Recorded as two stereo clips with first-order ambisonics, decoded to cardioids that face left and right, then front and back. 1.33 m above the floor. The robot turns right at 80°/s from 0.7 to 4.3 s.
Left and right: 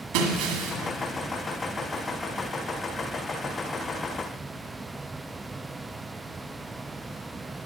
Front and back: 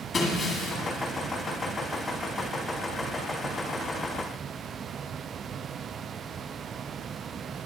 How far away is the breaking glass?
About 2.0 m.